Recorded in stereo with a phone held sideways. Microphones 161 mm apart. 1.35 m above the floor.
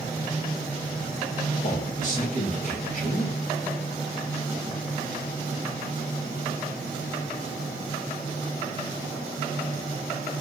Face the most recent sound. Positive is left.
turn(degrees=50)  # may be behind; listen again after turning